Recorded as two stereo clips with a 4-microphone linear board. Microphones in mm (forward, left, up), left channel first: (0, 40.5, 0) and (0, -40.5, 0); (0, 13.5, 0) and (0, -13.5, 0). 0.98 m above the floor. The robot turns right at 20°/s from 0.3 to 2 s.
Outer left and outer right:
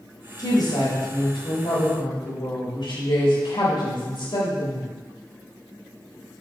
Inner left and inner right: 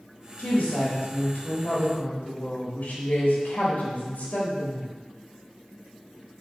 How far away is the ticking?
No ticking in this recording.